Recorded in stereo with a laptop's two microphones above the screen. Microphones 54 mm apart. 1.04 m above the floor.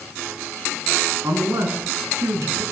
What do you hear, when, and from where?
1.2 s a man speaking: 65° right (ahead or behind), 8.5 m